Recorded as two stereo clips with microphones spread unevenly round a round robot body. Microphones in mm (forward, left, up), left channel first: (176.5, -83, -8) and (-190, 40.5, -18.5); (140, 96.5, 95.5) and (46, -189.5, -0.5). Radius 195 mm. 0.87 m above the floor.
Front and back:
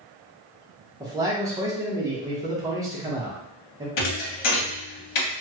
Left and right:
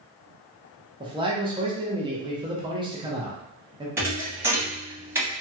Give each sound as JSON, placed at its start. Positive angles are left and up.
{"t": 1.0, "sound": "a man speaking", "azimuth_deg": -125, "distance_m": 0.8}
{"t": 4.0, "sound": "a thud", "azimuth_deg": -15, "distance_m": 1.0}